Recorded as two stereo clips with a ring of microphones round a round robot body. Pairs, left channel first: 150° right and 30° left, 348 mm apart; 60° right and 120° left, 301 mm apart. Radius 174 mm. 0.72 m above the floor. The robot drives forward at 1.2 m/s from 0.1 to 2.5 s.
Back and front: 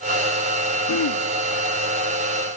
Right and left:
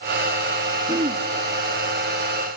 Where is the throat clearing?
165° right, 0.8 m; by 1.2 s 175° right, 1.1 m.